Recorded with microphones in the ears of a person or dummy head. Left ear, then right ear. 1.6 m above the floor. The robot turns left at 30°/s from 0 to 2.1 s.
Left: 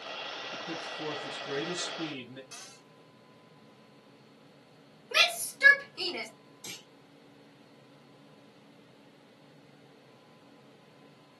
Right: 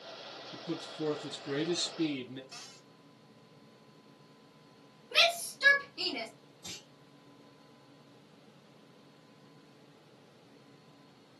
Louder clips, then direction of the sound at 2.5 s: Left 1 dB; 55° left (ahead or behind).